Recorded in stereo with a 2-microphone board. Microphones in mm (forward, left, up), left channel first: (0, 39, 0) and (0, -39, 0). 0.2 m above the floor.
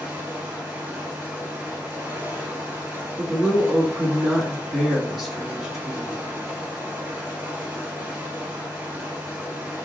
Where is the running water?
20° right (ahead or behind), 2.0 m.